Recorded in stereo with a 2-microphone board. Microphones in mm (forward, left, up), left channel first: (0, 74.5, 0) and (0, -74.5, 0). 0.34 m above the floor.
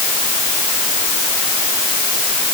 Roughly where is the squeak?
No squeak in this recording.